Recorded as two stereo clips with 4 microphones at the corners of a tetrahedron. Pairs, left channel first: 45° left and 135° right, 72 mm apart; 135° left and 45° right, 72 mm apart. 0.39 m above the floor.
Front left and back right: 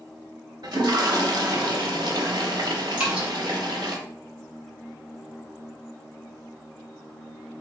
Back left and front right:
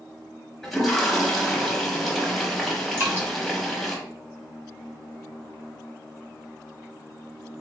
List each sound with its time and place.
0.6 s a toilet flushing: 140° right, 0.9 m
3.0 s dripping: 65° right, 1.4 m